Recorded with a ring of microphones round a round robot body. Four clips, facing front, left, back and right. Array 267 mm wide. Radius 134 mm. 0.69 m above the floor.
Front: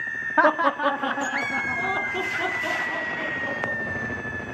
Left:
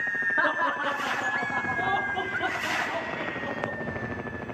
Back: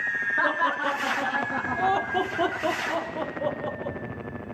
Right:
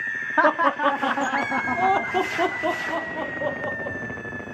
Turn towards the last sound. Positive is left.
turn(degrees=-120)